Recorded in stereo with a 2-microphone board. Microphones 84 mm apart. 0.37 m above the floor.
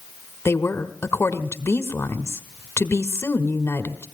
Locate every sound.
0.5 s a woman speaking: 30° left (ahead or behind), 1.5 m